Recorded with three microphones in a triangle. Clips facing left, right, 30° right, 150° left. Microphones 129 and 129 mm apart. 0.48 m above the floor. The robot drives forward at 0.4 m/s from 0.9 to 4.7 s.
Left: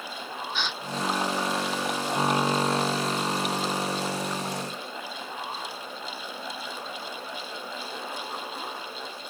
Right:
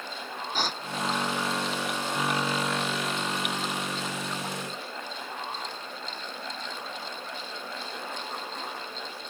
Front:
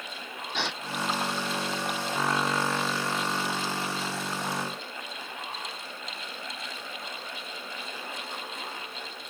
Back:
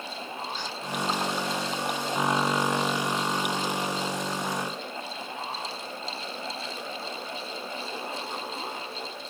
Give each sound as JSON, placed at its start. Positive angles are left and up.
{"t": 0.5, "sound": "a gasp", "azimuth_deg": -40}